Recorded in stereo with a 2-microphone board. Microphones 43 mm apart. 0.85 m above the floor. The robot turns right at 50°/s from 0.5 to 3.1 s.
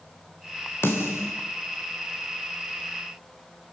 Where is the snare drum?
65° left (ahead or behind), 4 m; by 1.3 s 80° left, 4 m.